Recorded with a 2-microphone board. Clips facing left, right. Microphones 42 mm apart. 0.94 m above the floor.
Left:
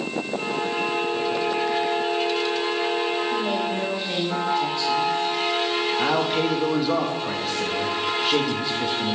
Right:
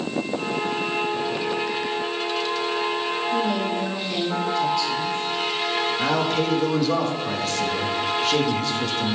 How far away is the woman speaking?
About 4 m.